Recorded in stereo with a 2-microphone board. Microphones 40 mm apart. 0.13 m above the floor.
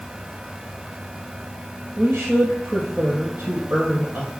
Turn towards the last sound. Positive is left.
turn(degrees=-60)  # may be behind; listen again after turning